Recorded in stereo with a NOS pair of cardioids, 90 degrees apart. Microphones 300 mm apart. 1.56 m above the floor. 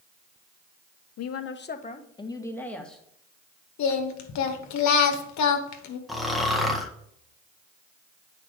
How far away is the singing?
About 1.4 m.